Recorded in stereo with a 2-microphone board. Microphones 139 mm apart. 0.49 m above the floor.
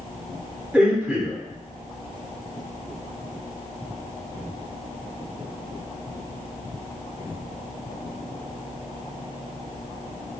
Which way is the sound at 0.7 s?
10° right (ahead or behind).